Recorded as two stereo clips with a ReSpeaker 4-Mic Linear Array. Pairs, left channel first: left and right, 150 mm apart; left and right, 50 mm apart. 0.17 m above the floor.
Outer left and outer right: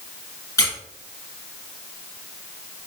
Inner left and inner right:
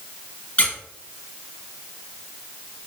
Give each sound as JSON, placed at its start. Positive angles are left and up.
{"t": 0.6, "sound": "a squeak", "side_deg": 25, "distance_m": 1.1}